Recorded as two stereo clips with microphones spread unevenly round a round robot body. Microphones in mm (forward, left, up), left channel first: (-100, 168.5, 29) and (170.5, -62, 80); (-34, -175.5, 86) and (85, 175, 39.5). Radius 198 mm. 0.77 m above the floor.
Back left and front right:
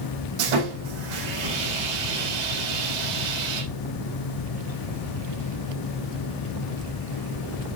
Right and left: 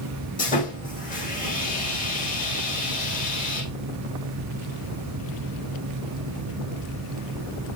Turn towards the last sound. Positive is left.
turn(degrees=-40)